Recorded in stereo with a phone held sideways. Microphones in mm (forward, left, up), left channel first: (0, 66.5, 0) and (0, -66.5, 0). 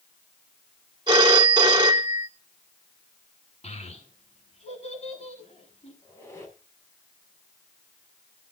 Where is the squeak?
20° left (ahead or behind), 5 m.